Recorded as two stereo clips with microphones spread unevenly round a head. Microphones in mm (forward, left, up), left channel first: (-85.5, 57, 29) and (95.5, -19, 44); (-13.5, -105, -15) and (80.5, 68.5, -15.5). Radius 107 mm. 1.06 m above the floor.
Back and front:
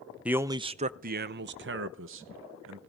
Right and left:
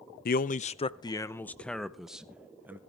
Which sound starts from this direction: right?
A man speaking, at 0.2 s.